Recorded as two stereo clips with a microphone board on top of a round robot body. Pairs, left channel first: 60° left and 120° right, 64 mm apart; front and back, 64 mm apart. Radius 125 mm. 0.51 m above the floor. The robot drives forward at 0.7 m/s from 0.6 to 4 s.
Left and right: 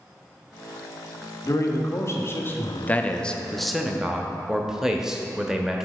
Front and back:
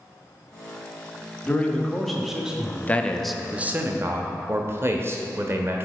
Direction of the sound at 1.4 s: 60° left.